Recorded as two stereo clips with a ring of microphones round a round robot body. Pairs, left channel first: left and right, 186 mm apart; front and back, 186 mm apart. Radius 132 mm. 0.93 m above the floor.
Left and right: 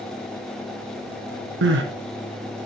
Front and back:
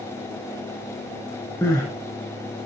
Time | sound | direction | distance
1.6 | crying | 80° right | 2.5 m